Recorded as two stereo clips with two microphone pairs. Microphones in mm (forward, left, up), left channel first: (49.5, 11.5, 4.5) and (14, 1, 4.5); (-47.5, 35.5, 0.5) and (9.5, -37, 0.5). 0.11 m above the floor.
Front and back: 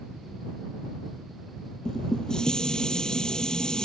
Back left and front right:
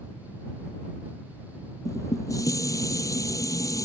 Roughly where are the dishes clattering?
Left.